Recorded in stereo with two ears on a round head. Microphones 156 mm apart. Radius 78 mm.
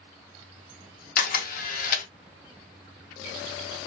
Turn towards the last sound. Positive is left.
turn(degrees=50)  # may be behind; listen again after turning